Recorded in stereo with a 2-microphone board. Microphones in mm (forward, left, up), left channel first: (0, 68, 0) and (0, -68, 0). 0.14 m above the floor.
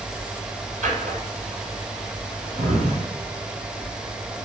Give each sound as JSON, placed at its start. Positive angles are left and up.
{"t": 0.8, "sound": "a drawer", "side_deg": -60, "distance_m": 1.9}